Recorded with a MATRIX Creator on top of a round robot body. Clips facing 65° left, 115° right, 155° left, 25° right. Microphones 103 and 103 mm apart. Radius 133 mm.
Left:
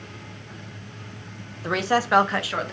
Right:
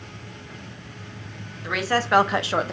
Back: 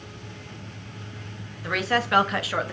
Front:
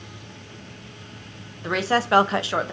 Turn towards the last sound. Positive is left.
turn(degrees=-85)